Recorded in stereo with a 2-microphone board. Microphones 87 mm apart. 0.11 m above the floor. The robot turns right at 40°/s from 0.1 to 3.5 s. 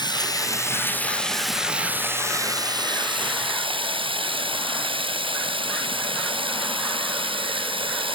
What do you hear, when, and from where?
0.0 s running water: 125° left; by 8.2 s 100° right